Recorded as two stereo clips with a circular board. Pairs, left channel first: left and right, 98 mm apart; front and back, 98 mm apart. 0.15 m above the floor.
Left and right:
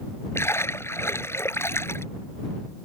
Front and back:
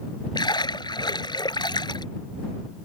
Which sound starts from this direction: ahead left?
A splash, at 0.3 s.